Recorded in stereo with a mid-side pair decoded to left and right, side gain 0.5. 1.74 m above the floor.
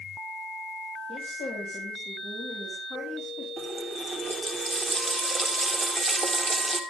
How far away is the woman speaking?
About 8 m.